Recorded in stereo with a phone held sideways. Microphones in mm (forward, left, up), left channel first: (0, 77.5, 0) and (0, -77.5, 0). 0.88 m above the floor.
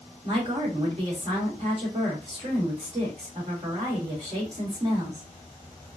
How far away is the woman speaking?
About 2.5 m.